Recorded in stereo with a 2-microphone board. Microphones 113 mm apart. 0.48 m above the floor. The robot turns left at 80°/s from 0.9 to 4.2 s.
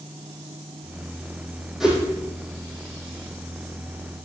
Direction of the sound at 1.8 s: Centre (ahead or behind).